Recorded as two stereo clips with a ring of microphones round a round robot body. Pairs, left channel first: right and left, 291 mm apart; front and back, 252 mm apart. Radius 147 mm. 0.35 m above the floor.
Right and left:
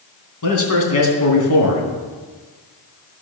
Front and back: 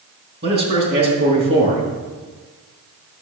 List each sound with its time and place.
0.4 s a man speaking: 125° right, 3 m